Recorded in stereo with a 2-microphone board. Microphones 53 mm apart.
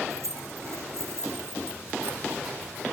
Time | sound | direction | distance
0.1 | keys jangling | 70° right (ahead or behind) | 2.5 m